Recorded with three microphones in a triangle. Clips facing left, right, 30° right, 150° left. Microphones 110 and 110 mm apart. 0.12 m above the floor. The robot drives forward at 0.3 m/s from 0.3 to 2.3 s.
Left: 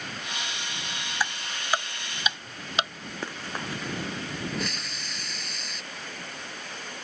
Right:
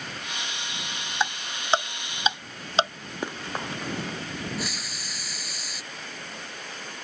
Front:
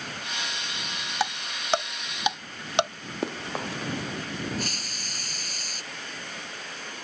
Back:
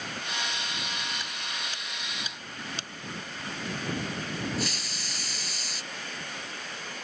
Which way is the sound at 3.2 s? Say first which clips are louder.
Right 3 dB, front 10 dB; 15° right.